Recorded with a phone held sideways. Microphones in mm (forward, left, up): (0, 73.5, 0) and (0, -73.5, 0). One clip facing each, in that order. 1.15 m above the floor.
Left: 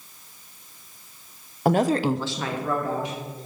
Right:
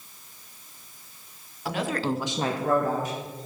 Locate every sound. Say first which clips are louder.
1.6 s a woman speaking: left 7 dB; 50° left (ahead or behind), 0.7 m; by 3.5 s 45° right (ahead or behind), 2 m